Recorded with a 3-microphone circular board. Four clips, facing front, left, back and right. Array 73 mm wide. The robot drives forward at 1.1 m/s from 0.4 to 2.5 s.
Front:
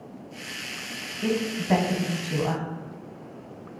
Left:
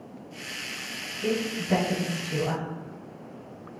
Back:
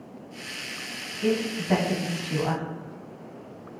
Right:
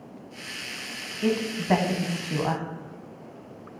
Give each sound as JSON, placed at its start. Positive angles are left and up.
{"t": 1.2, "sound": "a woman speaking", "azimuth_deg": -65, "distance_m": 3.0}